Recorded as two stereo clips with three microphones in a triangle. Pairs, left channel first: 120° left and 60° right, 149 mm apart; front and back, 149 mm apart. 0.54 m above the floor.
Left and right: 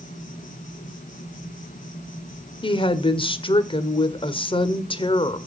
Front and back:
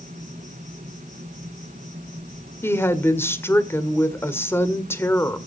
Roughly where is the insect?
Behind left.